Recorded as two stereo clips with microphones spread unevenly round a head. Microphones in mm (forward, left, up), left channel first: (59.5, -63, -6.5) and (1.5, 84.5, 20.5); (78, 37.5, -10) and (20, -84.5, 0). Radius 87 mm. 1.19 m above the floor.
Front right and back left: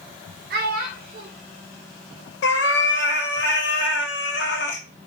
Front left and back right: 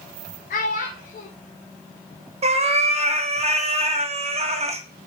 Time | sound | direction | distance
0.5 | a child speaking | 105° left | 0.6 m
2.4 | a cat meowing | 90° right | 0.7 m